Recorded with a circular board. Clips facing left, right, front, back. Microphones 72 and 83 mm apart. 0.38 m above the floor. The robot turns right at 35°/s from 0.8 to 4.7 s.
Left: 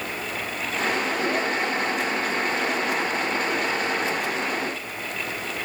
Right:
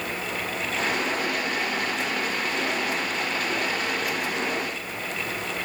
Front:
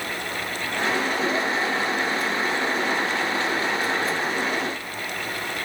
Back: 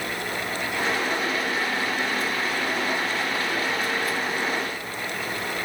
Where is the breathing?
I don't hear breathing.